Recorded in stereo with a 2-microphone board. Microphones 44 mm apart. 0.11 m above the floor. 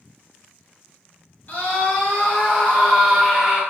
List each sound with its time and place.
1.5 s a scream: 35° left (ahead or behind), 2.0 m; by 3.6 s 25° right (ahead or behind), 2.0 m